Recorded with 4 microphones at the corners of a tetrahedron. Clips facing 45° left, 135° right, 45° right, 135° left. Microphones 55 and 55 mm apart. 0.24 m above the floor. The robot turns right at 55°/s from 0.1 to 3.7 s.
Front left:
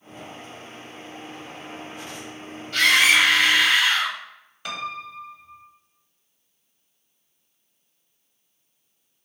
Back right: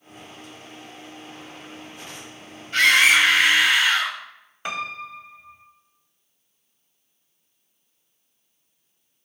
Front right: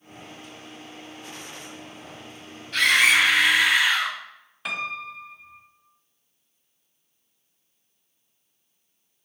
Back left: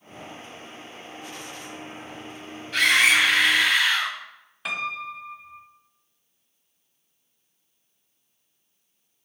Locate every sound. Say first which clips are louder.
2.7 s a scream: back right 1 dB, even; 150° right, 1.6 m; by 4.2 s 95° right, 1.6 m
4.7 s a piano: back right 2 dB, back left 1 dB; 140° right, 0.8 m